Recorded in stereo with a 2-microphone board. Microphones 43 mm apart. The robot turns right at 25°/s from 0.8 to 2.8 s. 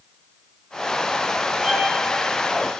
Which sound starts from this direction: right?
A violin, at 1.6 s.